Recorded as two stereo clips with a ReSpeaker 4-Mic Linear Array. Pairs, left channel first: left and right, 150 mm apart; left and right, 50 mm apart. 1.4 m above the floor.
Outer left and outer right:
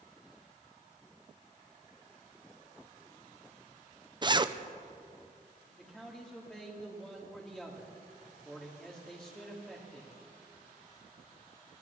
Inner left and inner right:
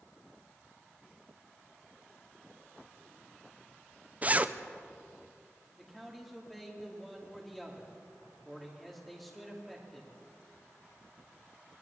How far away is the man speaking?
About 3 m.